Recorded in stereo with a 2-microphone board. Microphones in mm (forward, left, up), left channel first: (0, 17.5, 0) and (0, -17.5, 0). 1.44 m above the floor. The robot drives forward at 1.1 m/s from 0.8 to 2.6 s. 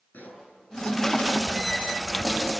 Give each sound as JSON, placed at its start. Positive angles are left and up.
{"t": 0.1, "sound": "a pop", "side_deg": 55, "distance_m": 7.0}